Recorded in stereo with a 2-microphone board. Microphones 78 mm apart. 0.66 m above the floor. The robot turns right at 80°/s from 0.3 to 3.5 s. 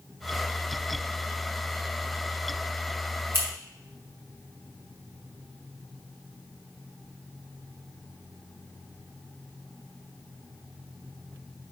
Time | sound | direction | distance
3.3 | scissors | 30° right (ahead or behind) | 2.5 m